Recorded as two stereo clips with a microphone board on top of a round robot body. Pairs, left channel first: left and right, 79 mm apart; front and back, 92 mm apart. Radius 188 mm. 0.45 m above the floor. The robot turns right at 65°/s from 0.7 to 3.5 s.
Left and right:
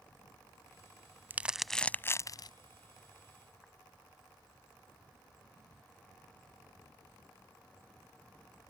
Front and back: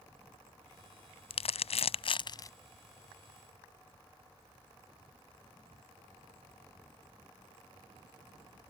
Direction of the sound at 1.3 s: 20° right.